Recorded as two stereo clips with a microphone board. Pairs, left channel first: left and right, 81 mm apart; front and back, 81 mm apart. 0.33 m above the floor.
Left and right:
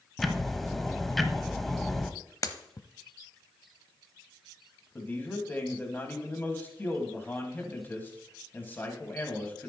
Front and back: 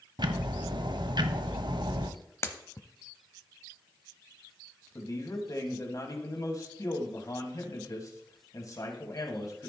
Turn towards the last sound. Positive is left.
turn(degrees=30)